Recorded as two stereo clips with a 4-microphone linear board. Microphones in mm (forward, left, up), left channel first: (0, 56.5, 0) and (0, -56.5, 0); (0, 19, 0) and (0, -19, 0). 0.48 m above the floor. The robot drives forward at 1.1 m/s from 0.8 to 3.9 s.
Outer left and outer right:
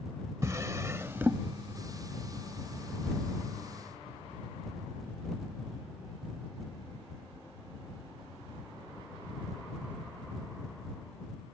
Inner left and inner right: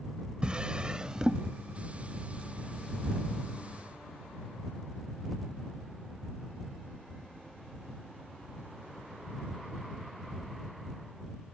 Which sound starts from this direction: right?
A drawer, at 0.4 s.